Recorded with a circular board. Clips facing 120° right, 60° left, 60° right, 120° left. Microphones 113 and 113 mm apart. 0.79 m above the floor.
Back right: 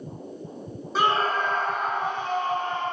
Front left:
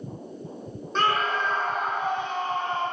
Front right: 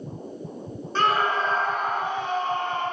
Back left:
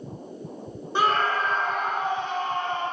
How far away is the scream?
About 0.6 m.